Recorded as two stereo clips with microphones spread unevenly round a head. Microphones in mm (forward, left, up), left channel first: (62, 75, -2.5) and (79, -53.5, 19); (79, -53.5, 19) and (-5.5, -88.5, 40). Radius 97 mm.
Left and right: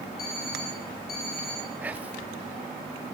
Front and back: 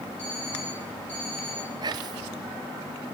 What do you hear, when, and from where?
0.2 s an alarm clock: 105° left, 7 m
1.8 s whispering: 155° right, 0.5 m